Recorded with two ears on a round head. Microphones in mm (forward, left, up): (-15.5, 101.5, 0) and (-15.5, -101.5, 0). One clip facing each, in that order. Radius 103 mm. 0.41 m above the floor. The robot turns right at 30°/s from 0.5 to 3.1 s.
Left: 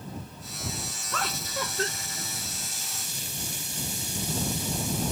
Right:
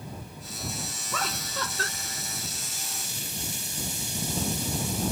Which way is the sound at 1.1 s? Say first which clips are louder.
Left 1 dB; 5° right (ahead or behind).